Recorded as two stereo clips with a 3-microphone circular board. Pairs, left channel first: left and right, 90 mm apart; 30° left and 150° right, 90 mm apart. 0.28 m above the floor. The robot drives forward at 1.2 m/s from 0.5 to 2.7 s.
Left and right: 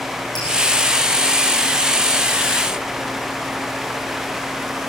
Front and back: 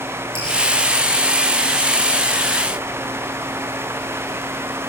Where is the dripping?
50° left, 7 m.